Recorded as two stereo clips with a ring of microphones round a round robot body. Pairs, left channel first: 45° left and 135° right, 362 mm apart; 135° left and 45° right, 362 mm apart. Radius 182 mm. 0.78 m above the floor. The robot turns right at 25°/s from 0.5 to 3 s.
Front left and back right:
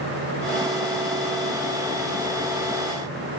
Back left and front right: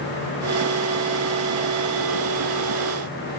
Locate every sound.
Only background noise.